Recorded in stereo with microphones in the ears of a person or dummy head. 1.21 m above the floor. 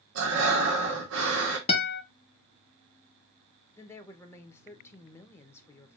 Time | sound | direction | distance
0.1 | breathing | 75° right (ahead or behind) | 1.4 m
1.7 | a guitar | 20° left (ahead or behind) | 0.8 m
3.8 | a woman speaking | 20° left (ahead or behind) | 0.9 m